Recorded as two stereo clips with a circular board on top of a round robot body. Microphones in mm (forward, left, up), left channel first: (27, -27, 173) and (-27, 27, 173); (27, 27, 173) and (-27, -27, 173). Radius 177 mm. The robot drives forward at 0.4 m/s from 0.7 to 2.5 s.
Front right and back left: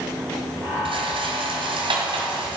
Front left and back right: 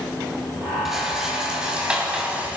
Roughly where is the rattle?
Behind left.